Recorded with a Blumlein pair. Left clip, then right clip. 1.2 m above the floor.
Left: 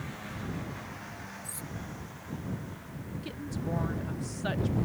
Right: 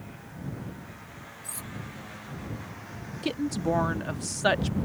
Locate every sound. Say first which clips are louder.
1.4 s cutlery clinking: right 2 dB; 10° right
3.2 s a woman speaking: right 11 dB; 30° right